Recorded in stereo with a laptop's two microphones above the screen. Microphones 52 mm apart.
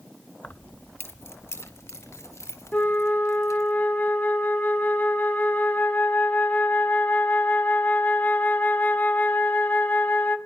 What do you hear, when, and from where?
0.4 s keys jangling: 30° left (ahead or behind), 0.7 m; by 3.7 s 70° left (ahead or behind), 4 m
2.7 s a flute: 30° left (ahead or behind), 1.5 m